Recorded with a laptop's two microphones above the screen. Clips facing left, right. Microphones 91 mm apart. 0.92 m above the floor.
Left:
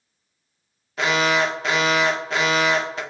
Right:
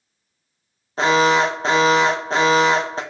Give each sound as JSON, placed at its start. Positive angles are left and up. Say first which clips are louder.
{"t": 1.0, "sound": "an alarm", "louder": "right 5 dB", "side_deg": -30, "distance_m": 1.5}